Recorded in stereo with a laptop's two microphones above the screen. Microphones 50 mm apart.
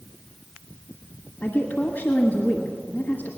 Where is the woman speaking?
35° left (ahead or behind), 1.1 m.